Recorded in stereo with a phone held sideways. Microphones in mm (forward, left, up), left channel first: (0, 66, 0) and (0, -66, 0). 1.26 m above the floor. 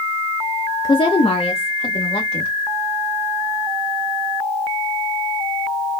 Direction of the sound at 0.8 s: 35° left (ahead or behind).